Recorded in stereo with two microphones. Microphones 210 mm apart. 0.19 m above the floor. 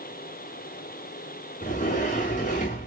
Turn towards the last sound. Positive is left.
turn(degrees=35)  # may be behind; listen again after turning